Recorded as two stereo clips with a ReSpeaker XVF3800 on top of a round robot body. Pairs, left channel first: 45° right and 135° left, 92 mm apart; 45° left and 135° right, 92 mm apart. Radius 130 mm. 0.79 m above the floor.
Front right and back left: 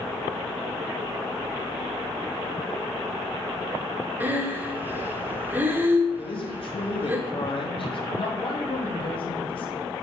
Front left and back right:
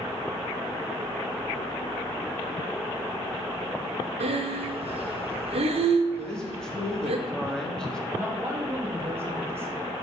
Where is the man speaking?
35° right, 2 m.